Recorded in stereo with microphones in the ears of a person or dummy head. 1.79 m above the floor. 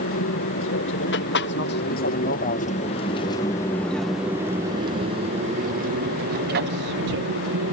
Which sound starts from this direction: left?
An aircraft, at 0.0 s.